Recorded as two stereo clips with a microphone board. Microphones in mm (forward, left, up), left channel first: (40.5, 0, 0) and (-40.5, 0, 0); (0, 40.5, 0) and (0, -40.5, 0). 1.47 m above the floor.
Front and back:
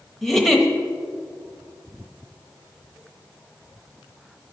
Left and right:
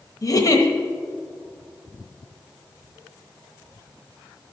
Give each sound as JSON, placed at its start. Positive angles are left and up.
{"t": 0.2, "sound": "a giggle", "azimuth_deg": 85, "distance_m": 0.9}